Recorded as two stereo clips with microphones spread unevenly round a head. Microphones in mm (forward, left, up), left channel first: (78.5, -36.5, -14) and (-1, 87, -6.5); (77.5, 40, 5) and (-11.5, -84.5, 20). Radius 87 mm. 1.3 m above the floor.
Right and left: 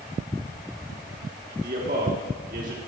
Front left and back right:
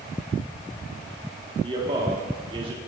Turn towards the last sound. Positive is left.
turn(degrees=170)